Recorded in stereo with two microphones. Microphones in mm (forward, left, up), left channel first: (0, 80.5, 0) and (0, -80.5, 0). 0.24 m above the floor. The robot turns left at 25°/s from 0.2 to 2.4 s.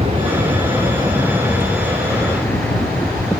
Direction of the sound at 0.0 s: 35° right (ahead or behind).